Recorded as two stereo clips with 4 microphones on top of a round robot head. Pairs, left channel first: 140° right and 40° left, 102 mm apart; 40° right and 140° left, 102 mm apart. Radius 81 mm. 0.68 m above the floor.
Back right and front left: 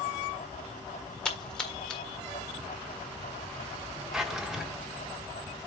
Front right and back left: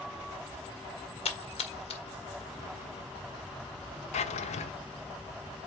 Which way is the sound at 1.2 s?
60° right.